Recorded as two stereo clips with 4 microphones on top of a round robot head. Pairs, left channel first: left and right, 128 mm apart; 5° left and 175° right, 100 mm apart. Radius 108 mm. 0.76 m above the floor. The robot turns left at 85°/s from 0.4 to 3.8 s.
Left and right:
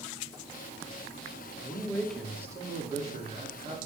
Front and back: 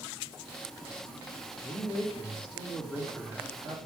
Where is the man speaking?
50° left, 2 m; by 3.9 s 135° right, 2 m.